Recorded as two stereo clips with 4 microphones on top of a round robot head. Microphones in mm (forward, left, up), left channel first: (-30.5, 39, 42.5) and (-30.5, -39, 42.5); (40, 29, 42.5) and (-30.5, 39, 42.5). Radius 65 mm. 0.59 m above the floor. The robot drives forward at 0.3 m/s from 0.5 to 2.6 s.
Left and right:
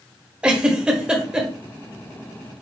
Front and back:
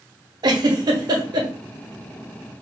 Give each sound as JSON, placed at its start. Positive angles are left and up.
{"t": 0.4, "sound": "a giggle", "azimuth_deg": -165, "distance_m": 1.0}